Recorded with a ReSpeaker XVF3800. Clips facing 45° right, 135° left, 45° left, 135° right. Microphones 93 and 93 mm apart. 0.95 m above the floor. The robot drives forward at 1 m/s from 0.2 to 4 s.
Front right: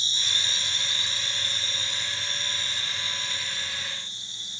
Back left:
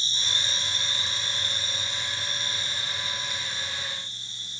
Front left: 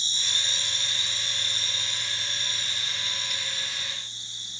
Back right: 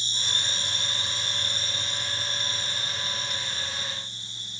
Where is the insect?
175° right, 1.6 m; by 4.6 s straight behind, 5.5 m.